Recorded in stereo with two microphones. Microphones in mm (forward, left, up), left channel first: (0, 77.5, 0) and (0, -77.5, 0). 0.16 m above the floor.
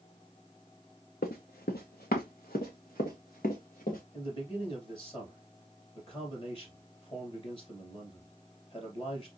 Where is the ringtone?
I don't hear a ringtone.